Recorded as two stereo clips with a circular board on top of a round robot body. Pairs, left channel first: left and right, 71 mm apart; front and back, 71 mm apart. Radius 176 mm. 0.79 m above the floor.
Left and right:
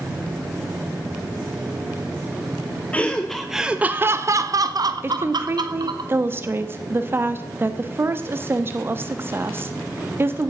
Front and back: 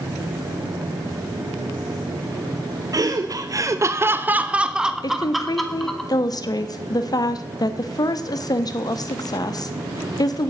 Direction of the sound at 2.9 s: 160° left.